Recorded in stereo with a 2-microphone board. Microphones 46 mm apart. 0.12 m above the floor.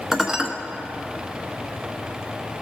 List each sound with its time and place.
0.1 s dishes clattering: 10° right (ahead or behind), 1.0 m